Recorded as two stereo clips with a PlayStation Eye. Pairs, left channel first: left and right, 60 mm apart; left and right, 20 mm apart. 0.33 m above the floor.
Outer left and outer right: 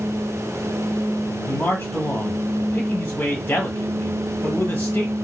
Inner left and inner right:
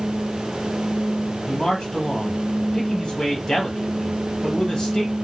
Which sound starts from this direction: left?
A man speaking, at 1.5 s.